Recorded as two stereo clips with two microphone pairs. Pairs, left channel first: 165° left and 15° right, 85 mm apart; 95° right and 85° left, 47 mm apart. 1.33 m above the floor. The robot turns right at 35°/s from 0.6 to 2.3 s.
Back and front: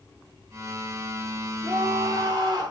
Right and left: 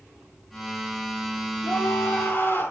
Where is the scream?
75° right, 4 m; by 2.7 s 55° right, 4 m.